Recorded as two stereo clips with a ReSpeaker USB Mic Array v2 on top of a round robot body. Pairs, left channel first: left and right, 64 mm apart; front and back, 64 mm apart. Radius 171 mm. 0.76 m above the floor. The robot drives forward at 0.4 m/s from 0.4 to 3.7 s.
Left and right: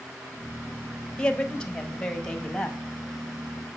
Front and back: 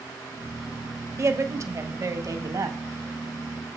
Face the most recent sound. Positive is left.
turn(degrees=170)